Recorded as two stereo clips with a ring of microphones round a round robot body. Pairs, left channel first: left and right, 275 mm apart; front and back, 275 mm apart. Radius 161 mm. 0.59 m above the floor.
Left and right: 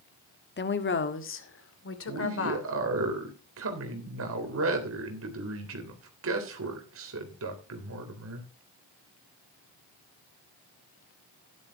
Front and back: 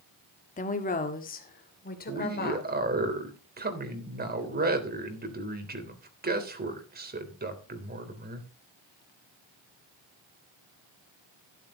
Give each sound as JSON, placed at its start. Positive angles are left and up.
{"t": 0.6, "sound": "a woman speaking", "azimuth_deg": 55, "distance_m": 1.5}
{"t": 2.1, "sound": "a man speaking", "azimuth_deg": -130, "distance_m": 3.5}